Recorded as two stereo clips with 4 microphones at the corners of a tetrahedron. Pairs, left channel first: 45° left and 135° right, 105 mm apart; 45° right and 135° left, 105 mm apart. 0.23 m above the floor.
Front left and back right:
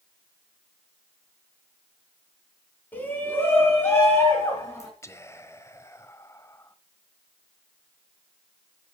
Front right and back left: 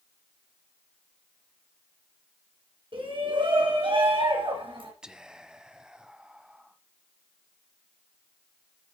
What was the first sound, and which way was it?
A shout, 115° left.